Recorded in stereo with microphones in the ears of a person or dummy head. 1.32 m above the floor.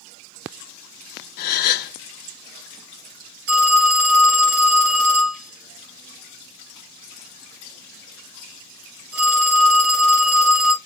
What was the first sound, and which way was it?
A gasp, 55° left (ahead or behind).